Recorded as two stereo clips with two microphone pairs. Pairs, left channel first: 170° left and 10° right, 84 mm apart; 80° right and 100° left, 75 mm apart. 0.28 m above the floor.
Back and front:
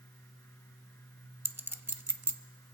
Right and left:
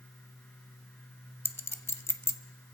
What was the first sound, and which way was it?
A clink, 55° right.